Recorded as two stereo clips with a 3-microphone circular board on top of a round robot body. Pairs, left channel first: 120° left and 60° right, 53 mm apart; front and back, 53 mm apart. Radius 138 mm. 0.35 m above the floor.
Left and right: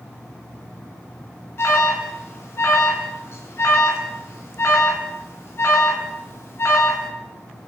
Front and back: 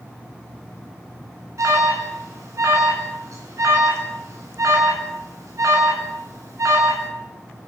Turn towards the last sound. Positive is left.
turn(degrees=160)